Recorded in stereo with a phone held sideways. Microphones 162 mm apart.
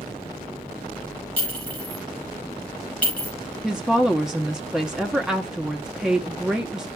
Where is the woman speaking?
5° right (ahead or behind), 0.8 m.